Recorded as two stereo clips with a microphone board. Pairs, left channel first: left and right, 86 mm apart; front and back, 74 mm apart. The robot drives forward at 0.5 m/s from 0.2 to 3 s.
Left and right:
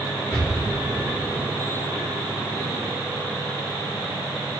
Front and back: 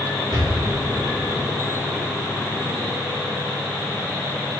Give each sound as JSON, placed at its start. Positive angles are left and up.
{"t": 0.3, "sound": "an explosion", "azimuth_deg": 180, "distance_m": 5.5}